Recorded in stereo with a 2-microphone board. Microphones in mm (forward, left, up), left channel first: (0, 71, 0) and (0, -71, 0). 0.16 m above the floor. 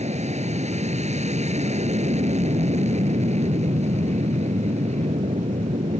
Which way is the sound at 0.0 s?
50° right (ahead or behind).